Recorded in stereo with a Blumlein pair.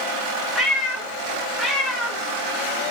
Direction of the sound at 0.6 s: 5° right.